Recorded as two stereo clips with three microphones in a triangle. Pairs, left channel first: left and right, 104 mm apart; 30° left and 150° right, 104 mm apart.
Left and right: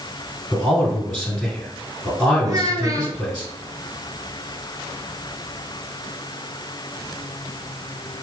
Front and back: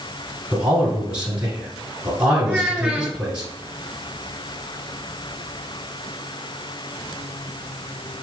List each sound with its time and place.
0.5 s a man speaking: 155° left, 1.6 m
2.4 s a child speaking: 75° right, 1.1 m